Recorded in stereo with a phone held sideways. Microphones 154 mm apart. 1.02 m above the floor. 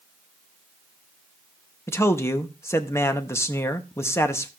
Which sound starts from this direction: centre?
A man speaking, at 1.9 s.